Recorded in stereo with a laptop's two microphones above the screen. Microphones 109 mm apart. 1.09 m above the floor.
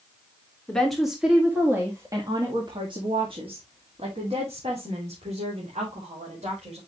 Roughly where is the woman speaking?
Centre.